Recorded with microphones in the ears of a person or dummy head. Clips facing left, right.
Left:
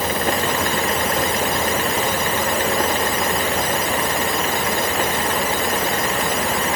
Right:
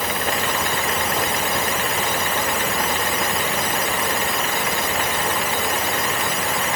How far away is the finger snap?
No finger snap in this recording.